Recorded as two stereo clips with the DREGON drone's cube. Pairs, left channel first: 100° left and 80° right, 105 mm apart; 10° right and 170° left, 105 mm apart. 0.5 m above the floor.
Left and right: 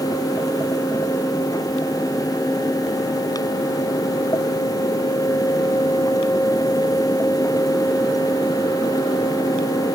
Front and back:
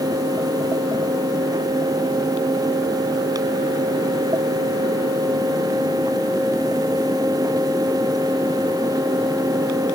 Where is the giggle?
No giggle in this recording.